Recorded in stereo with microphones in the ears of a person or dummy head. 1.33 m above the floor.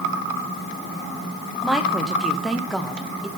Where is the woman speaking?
Centre (ahead or behind), 0.7 m.